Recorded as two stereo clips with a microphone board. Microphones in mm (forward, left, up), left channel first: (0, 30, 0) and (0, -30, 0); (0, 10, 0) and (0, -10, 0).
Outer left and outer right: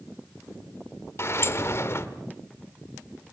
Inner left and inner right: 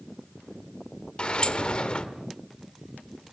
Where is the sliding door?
45° left (ahead or behind), 1.5 m.